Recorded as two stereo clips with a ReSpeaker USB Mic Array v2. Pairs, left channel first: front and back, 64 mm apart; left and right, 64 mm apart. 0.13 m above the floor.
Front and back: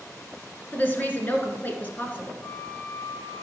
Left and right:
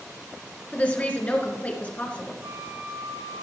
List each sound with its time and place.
0.7 s a woman speaking: 40° left, 2.0 m
2.4 s a flute: 55° right, 6 m